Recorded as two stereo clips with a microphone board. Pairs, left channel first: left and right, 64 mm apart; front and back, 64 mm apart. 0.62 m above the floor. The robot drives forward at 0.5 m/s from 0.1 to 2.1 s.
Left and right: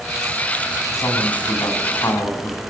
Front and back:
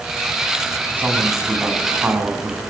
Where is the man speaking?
115° left, 6 m; by 2.6 s 120° left, 6 m.